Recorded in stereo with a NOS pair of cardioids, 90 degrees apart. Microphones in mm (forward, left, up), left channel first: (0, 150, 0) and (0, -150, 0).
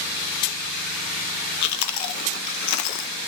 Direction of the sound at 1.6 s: 70° left.